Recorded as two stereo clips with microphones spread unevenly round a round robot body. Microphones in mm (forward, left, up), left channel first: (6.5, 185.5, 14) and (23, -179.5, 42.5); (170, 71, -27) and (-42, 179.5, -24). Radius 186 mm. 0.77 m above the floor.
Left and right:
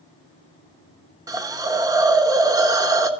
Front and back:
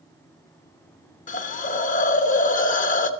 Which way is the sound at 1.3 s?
10° right.